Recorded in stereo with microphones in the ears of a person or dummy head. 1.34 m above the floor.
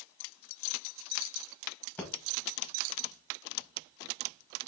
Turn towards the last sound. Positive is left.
turn(degrees=10)  # may be behind; listen again after turning